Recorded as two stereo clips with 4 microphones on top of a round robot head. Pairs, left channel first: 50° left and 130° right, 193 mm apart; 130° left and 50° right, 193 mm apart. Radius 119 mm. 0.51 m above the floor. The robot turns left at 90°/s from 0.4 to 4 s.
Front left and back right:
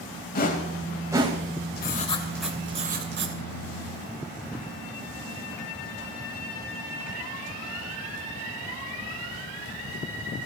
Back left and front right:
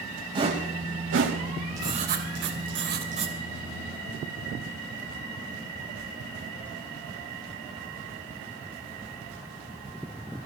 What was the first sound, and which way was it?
A whoosh, 10° left.